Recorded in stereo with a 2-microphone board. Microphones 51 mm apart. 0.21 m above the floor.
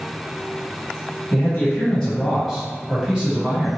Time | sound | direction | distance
1.3 | a man speaking | 30° left (ahead or behind) | 1.3 m